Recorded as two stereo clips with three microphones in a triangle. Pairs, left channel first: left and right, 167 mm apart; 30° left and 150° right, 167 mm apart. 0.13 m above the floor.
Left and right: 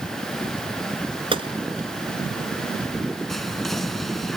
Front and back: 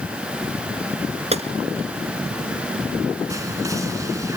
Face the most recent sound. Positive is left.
turn(degrees=180)